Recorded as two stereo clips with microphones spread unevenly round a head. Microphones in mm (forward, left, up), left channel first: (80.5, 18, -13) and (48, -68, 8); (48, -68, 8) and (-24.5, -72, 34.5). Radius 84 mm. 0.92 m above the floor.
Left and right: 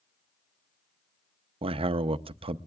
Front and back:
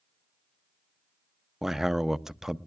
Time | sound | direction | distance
1.6 | a man speaking | 85° right | 0.6 m